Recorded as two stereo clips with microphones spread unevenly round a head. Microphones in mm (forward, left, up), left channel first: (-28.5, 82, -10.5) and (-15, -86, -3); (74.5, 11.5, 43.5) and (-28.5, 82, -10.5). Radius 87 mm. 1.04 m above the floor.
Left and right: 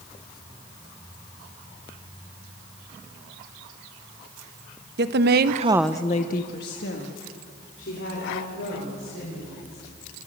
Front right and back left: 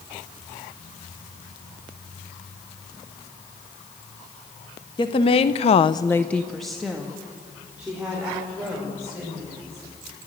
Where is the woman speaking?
105° right, 1.3 m; by 9.8 s 70° left, 6.5 m.